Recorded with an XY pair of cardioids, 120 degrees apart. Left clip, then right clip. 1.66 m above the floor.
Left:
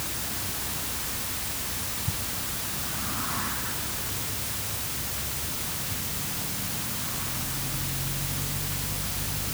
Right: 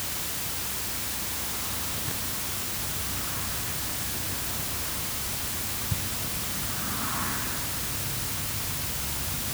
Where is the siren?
I don't hear a siren.